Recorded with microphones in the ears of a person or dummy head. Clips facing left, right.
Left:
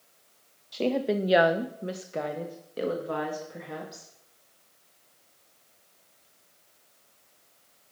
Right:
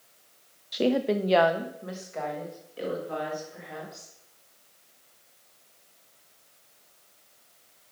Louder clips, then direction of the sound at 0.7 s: Right 2 dB; 20° right (ahead or behind).